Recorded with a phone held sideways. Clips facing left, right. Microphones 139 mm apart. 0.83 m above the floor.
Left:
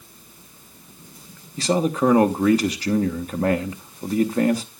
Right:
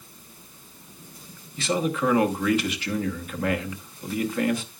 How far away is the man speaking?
About 1.2 m.